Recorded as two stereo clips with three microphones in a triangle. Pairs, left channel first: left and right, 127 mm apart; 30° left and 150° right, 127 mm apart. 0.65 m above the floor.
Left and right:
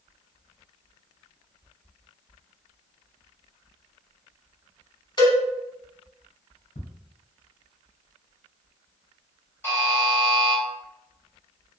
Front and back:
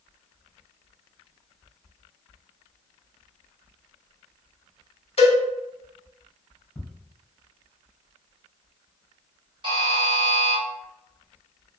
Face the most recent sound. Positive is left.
turn(degrees=160)